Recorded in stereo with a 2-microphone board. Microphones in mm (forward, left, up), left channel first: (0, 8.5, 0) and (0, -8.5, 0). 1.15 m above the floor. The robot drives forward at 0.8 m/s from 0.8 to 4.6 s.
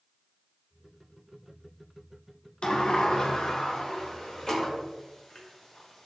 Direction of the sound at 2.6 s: 70° left (ahead or behind).